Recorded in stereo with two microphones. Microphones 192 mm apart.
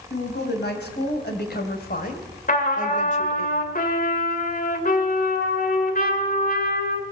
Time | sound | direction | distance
0.1 | a woman speaking | 65° left (ahead or behind) | 4 m
2.5 | a trumpet | 50° left (ahead or behind) | 2.5 m